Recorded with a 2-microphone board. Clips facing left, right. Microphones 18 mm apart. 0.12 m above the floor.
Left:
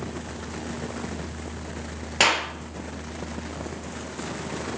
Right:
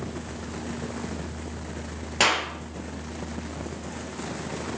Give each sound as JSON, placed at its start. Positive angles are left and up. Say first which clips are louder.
{"t": 2.2, "sound": "a clap", "louder": "left 1 dB", "side_deg": 10, "distance_m": 2.5}